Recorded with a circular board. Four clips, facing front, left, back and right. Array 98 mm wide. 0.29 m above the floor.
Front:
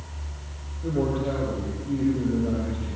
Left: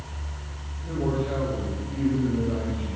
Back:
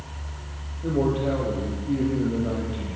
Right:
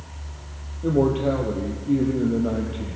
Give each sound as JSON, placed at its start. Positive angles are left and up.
{"t": 0.8, "sound": "a man speaking", "azimuth_deg": -95, "distance_m": 7.0}